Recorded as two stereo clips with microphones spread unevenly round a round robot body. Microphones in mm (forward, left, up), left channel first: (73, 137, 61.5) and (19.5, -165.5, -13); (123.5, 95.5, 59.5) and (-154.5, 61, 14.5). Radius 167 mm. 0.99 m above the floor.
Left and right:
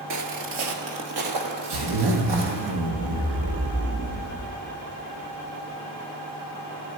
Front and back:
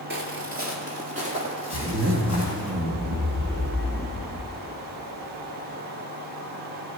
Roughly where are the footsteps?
Behind right.